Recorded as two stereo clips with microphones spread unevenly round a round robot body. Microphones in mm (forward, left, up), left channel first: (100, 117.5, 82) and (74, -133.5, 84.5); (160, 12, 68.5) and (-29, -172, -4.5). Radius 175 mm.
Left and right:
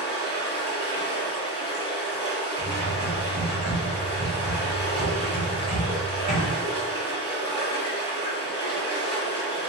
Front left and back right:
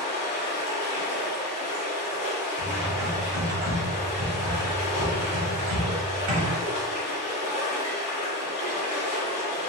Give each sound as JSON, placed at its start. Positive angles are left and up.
{"t": 0.0, "sound": "running water", "azimuth_deg": 20, "distance_m": 1.7}
{"t": 2.6, "sound": "typing on a keyboard", "azimuth_deg": -165, "distance_m": 0.8}